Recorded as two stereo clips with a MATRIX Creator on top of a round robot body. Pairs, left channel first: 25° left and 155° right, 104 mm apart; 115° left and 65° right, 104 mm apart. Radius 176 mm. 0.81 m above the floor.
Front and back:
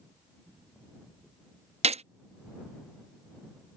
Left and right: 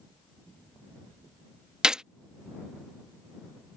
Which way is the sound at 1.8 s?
150° right.